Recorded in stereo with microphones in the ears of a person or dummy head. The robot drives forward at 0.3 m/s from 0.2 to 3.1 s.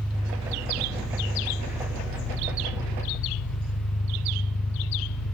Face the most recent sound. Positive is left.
turn(degrees=35)  # may be behind; listen again after turning